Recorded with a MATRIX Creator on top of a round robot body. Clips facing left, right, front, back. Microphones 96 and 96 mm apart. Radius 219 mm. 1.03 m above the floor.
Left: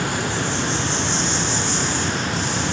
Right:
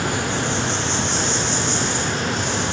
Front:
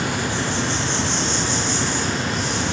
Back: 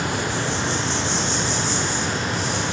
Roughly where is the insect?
Behind right.